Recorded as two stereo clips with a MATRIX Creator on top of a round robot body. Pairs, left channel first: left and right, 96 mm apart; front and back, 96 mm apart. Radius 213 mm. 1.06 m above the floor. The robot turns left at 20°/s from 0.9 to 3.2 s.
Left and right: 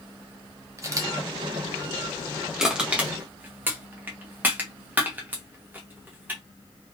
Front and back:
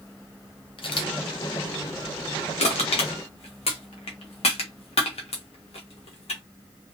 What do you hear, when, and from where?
0.8 s a camera shutter: 30° right, 0.8 m; by 1.1 s 35° right, 0.8 m
2.6 s crushing: 5° right, 0.8 m; by 6.4 s 20° right, 0.8 m